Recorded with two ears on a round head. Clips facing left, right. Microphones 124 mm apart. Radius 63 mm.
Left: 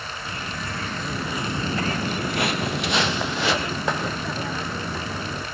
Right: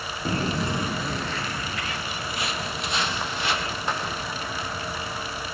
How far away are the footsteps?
About 1.4 m.